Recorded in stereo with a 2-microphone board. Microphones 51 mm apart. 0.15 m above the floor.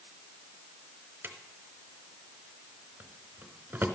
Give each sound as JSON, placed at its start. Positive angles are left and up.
{"t": 1.2, "sound": "a drawer", "side_deg": -40, "distance_m": 1.0}